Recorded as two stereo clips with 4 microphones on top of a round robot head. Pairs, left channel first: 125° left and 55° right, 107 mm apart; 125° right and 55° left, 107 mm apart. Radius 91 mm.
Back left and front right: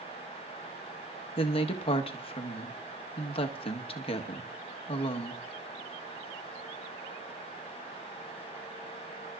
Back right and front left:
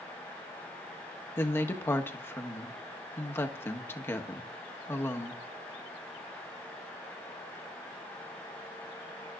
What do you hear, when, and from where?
1.4 s a woman speaking: 165° left, 1.3 m